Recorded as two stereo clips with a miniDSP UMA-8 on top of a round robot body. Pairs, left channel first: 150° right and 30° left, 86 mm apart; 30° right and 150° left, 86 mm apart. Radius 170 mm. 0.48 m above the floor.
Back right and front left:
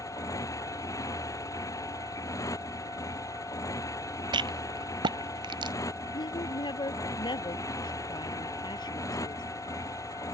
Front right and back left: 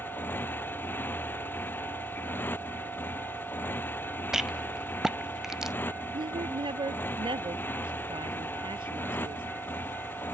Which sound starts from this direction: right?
A motorcycle, at 0.0 s.